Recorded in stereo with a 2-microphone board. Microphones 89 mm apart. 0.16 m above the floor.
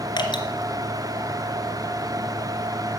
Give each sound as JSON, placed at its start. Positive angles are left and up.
{"t": 0.2, "sound": "dripping", "side_deg": 60, "distance_m": 2.0}